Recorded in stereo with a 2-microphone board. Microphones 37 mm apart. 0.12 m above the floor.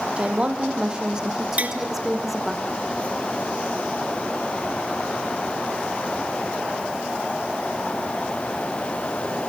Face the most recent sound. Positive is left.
turn(degrees=-40)  # may be behind; listen again after turning